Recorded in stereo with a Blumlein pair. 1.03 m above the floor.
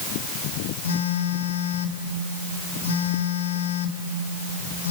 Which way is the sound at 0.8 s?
65° left.